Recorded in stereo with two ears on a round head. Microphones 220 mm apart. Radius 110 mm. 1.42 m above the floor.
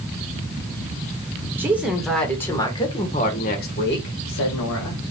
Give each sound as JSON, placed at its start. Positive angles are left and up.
{"t": 1.6, "sound": "a woman speaking", "side_deg": -10, "distance_m": 1.6}